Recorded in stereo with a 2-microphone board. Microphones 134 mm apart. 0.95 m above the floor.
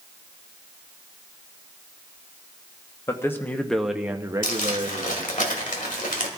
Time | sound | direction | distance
3.1 | a man speaking | 20° left (ahead or behind) | 1.1 m
4.4 | crumpling | 80° left | 1.8 m